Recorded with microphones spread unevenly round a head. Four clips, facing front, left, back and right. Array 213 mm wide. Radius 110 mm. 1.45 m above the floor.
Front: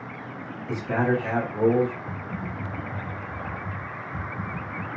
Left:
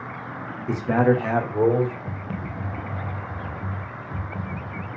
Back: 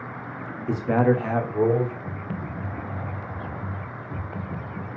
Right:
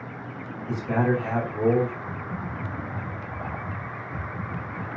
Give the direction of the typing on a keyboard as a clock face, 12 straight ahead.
8 o'clock.